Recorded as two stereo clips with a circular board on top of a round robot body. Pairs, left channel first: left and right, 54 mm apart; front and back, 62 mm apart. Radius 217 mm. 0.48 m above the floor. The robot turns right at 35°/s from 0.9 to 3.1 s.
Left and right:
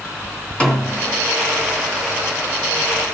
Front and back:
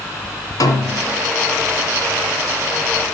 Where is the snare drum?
20° left, 3 m; by 1.2 s 30° left, 3 m.